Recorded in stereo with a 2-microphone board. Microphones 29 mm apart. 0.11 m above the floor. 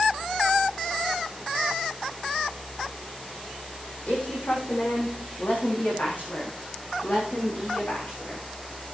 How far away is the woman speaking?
About 5.5 m.